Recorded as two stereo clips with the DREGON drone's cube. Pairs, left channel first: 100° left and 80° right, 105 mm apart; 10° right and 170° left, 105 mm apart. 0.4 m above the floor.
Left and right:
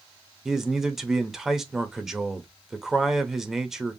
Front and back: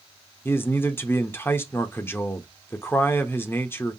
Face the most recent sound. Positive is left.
turn(degrees=-5)